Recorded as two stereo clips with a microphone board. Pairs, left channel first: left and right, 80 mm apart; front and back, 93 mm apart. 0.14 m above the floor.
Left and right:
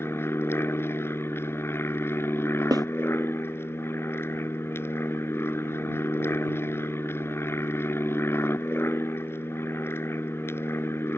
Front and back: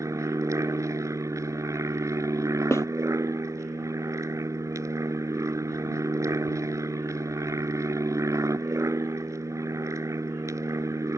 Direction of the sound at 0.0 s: 135° left.